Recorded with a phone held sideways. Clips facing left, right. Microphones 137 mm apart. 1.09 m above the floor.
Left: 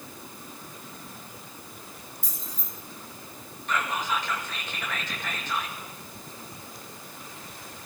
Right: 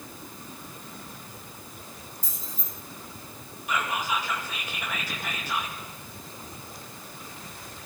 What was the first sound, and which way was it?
Keys jangling, 50° right (ahead or behind).